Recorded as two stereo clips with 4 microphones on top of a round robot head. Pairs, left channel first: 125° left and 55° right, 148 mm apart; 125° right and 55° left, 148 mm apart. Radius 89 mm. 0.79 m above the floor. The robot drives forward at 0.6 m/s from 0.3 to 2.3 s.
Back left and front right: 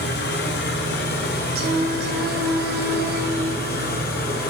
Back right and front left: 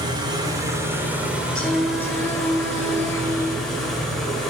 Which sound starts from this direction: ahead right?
Singing, at 1.6 s.